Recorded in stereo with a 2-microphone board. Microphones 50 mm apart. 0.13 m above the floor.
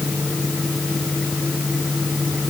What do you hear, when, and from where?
Only background noise.